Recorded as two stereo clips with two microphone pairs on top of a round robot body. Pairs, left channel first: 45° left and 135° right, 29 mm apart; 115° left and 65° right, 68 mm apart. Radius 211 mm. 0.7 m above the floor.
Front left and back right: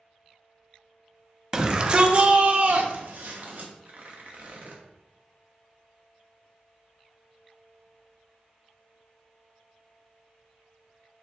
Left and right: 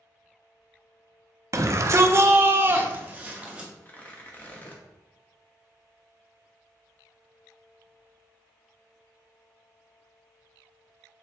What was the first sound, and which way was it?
A shout, 70° right.